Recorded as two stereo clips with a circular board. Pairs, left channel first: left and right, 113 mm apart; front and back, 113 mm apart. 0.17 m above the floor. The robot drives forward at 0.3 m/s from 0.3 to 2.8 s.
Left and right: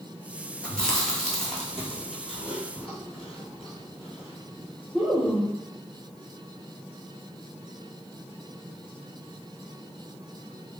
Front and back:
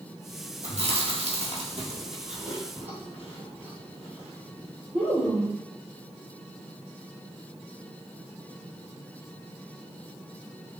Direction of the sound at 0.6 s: 175° left.